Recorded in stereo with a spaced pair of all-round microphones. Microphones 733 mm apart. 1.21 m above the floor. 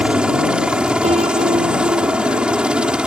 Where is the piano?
10° right (ahead or behind).